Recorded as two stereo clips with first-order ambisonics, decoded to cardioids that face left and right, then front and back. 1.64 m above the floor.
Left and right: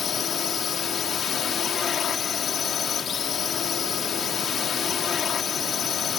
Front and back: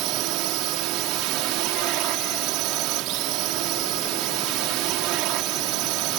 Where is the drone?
150° left.